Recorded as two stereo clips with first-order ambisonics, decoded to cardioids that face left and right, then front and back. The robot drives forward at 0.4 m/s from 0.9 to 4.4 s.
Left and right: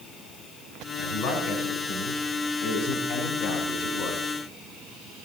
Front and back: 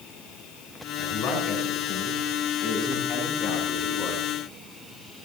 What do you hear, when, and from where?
1.0 s a man speaking: 70° left, 4 m; by 4.2 s 90° left, 4 m